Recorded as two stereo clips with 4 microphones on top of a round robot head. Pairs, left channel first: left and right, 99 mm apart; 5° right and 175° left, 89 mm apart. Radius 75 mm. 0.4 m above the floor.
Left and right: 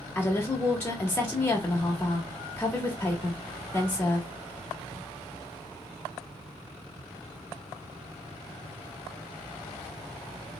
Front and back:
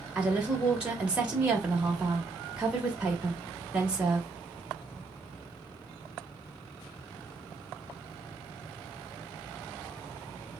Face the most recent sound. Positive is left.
turn(degrees=115)